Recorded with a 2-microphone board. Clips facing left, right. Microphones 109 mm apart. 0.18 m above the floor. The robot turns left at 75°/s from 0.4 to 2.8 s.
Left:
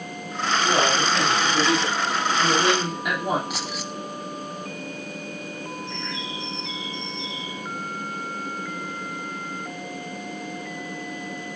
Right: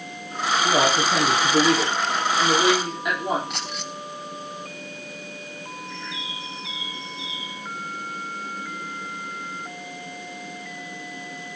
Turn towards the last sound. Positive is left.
turn(degrees=-5)  # may be behind; listen again after turning